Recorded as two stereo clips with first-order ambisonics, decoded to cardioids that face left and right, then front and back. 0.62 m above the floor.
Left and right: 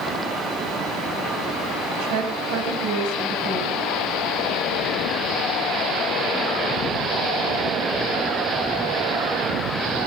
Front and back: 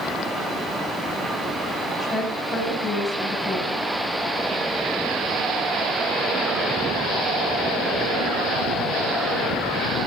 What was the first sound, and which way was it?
A woman speaking, 90° right.